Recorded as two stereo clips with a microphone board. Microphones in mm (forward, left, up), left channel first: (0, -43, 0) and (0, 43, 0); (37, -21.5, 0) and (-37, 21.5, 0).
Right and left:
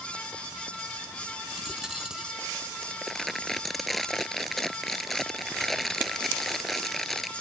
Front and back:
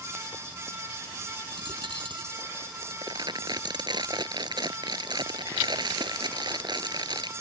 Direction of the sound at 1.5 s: 175° left.